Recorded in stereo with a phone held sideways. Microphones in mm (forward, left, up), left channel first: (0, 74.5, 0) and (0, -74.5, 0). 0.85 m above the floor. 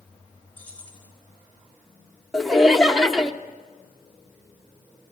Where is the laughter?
Centre (ahead or behind), 0.6 m.